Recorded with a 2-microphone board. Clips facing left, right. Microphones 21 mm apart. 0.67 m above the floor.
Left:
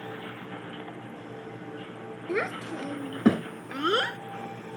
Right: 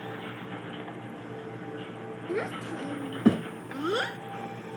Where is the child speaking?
90° left; by 4.2 s 80° left.